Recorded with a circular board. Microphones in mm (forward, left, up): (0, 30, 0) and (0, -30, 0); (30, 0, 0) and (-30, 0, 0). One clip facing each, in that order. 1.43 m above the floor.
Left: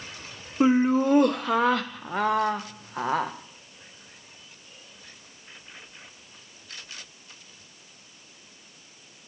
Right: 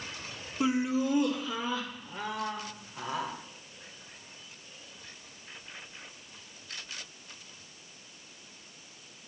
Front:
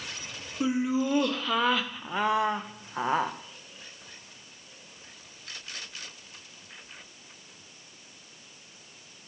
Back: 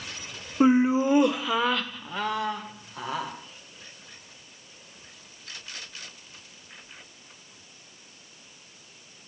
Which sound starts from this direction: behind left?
Laughter, at 0.6 s.